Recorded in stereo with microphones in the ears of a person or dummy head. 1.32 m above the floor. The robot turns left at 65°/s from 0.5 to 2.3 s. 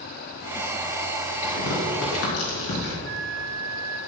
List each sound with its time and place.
1.4 s tearing paper: 35° left (ahead or behind), 3.5 m; by 2.9 s 70° left (ahead or behind), 3.5 m
3.0 s a flute: 65° right (ahead or behind), 0.9 m